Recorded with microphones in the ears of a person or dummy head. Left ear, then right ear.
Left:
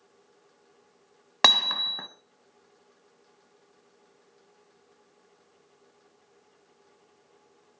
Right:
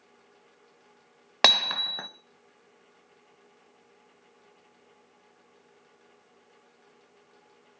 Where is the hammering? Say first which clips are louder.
Left 1 dB; 20° right (ahead or behind), 0.7 m.